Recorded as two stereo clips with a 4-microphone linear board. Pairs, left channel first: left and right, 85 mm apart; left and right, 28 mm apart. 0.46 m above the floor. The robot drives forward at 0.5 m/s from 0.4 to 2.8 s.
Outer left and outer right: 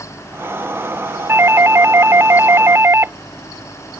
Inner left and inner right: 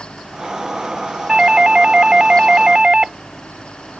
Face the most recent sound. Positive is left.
turn(degrees=-30)  # may be behind; listen again after turning